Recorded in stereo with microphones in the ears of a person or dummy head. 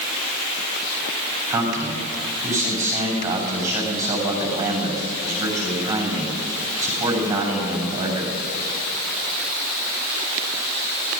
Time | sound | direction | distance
1.5 | a man speaking | 40° right (ahead or behind) | 8.5 m